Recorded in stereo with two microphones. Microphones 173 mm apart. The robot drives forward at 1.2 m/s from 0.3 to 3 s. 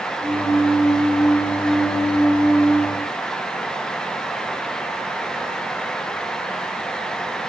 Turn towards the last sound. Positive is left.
No sound to turn to.